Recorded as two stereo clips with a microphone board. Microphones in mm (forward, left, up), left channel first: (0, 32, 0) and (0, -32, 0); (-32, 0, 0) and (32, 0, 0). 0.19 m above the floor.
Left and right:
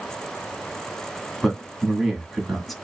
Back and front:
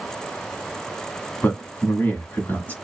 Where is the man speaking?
Straight behind, 1.2 m.